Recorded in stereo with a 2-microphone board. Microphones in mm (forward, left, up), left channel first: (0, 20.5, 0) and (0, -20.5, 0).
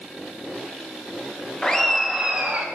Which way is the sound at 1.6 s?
20° left (ahead or behind).